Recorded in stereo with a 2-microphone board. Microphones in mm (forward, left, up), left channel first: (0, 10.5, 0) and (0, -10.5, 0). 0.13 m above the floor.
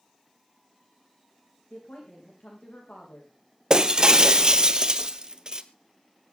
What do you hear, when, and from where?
1.7 s a woman speaking: 75° left (ahead or behind), 8 m
3.7 s breaking glass: 40° right (ahead or behind), 1.0 m